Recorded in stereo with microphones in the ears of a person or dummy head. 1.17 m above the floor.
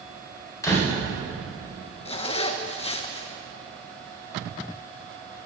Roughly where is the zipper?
Left.